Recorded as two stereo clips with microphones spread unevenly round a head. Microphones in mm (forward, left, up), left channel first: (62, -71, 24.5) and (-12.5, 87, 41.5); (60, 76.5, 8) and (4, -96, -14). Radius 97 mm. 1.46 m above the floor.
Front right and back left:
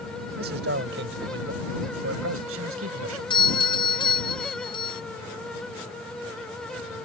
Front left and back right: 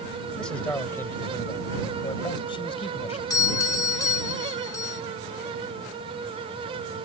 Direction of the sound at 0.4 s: 155° left.